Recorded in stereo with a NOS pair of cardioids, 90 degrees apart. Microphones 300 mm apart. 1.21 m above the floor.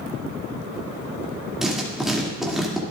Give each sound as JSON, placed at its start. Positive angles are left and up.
{"t": 1.6, "sound": "writing", "azimuth_deg": 0, "distance_m": 2.5}